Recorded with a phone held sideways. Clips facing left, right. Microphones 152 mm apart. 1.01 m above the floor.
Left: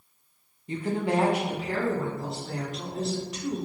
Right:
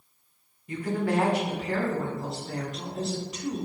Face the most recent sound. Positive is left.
turn(degrees=-5)  # may be behind; listen again after turning